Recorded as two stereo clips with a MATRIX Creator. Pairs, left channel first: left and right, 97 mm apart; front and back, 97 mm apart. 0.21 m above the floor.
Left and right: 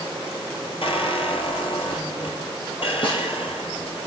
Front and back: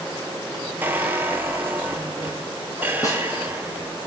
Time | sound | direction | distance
0.8 | a squeak | 110° left | 1.1 m
3.0 | a snare drum | 55° left | 3 m